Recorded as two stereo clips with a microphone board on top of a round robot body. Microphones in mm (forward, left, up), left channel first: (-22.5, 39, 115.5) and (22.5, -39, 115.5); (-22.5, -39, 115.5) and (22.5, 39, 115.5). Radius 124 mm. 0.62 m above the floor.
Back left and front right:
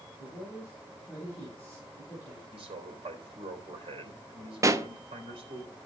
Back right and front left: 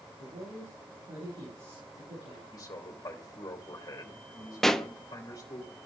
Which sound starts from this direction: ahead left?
A man speaking, at 0.2 s.